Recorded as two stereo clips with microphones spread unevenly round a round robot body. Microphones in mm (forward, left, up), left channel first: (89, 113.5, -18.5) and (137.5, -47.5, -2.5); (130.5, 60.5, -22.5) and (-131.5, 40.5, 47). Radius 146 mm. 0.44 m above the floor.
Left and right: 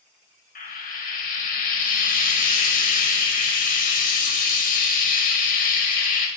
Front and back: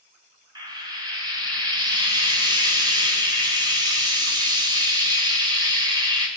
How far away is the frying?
About 2.5 m.